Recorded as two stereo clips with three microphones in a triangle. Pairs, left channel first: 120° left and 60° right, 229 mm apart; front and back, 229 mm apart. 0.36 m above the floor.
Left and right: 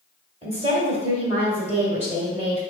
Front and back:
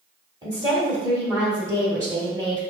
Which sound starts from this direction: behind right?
A woman speaking, at 0.4 s.